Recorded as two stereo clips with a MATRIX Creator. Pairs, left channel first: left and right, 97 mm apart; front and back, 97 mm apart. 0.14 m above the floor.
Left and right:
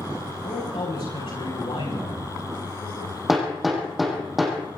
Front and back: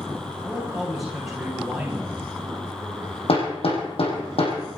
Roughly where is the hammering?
Ahead.